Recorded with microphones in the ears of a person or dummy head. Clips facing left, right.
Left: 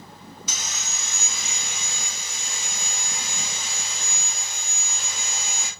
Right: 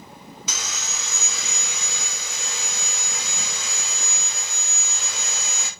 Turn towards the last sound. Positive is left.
turn(degrees=-75)  # may be behind; listen again after turning